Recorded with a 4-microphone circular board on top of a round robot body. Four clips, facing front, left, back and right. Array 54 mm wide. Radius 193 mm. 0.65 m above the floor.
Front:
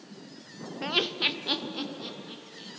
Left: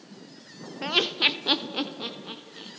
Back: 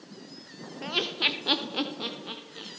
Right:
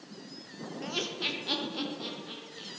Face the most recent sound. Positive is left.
turn(degrees=150)